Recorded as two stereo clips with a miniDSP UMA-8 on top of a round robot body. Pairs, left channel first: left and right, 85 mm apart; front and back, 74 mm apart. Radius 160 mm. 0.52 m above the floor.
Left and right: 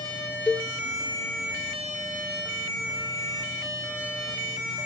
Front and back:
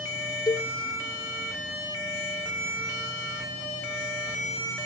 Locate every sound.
0.5 s a cowbell: 10° left, 0.6 m